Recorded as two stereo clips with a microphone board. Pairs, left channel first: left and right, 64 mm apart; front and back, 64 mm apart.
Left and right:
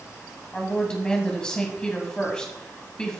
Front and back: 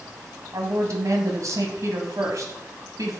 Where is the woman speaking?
165° left, 1.9 m.